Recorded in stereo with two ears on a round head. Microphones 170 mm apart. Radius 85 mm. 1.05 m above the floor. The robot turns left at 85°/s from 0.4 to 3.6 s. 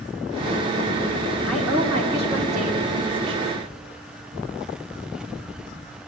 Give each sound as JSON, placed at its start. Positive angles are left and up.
{"t": 1.5, "sound": "a woman speaking", "azimuth_deg": 5, "distance_m": 2.5}